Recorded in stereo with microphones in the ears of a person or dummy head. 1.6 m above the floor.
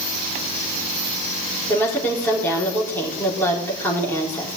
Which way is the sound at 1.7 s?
10° left (ahead or behind).